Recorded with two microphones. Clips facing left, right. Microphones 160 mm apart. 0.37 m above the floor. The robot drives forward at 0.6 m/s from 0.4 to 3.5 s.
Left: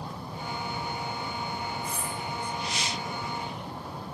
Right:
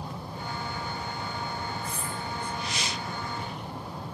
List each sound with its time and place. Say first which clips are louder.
1.8 s cutlery clinking: left 1 dB; 65° right (ahead or behind), 2.5 m; by 2.1 s 60° right (ahead or behind), 2.5 m